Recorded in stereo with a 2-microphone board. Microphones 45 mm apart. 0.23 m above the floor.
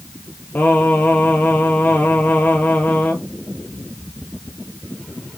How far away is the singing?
About 1.0 m.